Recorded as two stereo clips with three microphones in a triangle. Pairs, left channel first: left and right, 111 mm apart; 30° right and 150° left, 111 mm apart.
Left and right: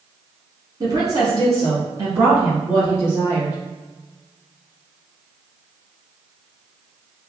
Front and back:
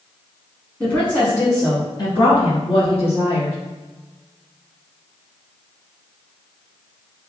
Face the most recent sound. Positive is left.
turn(degrees=-30)